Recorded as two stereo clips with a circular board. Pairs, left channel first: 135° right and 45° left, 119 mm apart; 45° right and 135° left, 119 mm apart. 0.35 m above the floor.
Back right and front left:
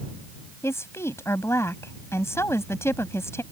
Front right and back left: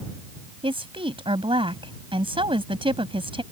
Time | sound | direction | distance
0.6 | a woman speaking | 160° left | ?